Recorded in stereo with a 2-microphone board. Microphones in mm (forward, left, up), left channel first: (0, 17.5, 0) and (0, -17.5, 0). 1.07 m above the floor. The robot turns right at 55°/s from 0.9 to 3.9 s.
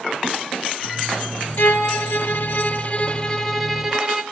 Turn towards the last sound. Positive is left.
turn(degrees=-170)